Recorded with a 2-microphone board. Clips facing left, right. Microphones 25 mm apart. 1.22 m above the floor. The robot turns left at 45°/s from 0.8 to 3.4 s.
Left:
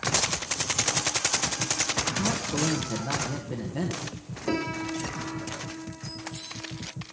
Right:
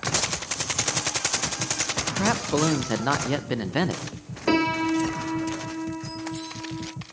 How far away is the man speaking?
About 0.6 m.